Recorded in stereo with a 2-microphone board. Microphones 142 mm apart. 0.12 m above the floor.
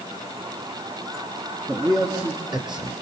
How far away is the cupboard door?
I don't hear a cupboard door.